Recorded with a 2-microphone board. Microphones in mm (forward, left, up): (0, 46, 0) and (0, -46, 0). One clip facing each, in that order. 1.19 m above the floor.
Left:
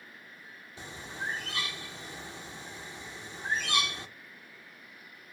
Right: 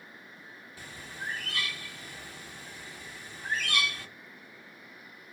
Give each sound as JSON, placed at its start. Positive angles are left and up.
{"t": 0.8, "sound": "a bird", "side_deg": 25, "distance_m": 0.6}